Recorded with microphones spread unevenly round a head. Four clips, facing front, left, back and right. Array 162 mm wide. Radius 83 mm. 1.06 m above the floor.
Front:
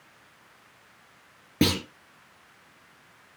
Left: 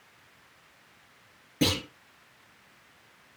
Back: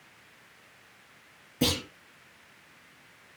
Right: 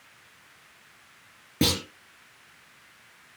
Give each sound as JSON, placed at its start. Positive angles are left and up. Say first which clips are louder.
{"t": 1.6, "sound": "a clunk", "louder": "right 1 dB, front 5 dB", "azimuth_deg": -25, "distance_m": 5.5}